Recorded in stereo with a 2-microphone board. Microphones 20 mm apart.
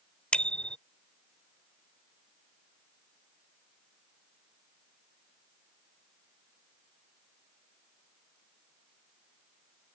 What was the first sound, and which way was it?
A bicycle bell, 65° left (ahead or behind).